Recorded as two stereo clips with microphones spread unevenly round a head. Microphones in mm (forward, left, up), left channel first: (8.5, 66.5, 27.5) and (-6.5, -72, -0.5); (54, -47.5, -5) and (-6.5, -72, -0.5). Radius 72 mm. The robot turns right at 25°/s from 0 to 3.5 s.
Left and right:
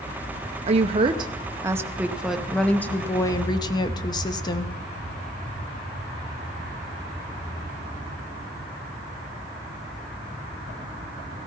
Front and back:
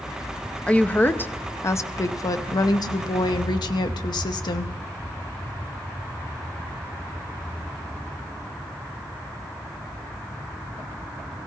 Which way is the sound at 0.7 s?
50° right.